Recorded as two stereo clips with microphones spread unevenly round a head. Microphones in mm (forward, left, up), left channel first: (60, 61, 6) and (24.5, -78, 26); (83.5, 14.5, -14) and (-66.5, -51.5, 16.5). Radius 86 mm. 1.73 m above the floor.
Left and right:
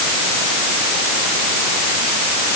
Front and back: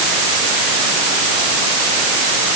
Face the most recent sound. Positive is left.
No sound to turn to.